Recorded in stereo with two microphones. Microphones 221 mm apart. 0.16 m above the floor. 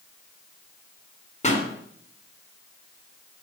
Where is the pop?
30° left (ahead or behind), 1.6 m.